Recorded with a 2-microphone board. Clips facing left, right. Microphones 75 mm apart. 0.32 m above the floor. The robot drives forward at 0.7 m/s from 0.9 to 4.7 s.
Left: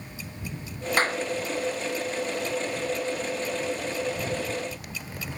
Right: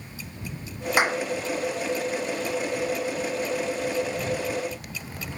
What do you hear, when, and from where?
1.0 s a clap: 10° right (ahead or behind)